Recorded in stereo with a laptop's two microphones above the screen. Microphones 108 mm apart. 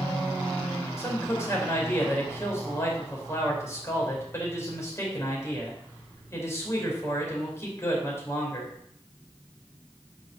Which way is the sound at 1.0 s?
25° left (ahead or behind).